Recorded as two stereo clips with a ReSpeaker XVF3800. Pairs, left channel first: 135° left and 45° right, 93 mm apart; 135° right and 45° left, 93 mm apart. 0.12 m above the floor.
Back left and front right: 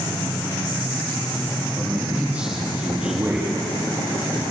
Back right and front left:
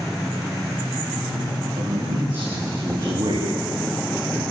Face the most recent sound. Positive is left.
turn(degrees=20)